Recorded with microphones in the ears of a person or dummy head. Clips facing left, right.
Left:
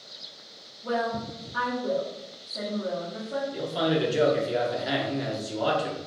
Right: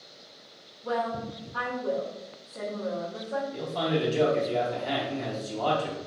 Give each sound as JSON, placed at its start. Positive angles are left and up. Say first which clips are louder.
{"t": 0.8, "sound": "a woman speaking", "louder": "left 1 dB", "side_deg": 30, "distance_m": 0.9}
{"t": 3.5, "sound": "a man speaking", "louder": "left 4 dB", "side_deg": 10, "distance_m": 0.5}